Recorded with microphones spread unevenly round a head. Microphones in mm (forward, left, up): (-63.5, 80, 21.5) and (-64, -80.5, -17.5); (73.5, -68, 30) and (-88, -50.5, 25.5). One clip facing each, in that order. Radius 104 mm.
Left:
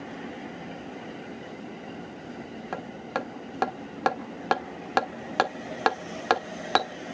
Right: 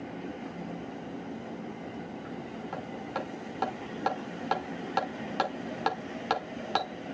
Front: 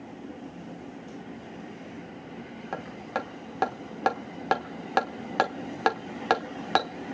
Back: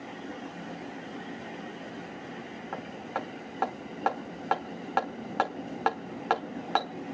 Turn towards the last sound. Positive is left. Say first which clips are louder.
# left 4 dB, front 3 dB
turn(degrees=55)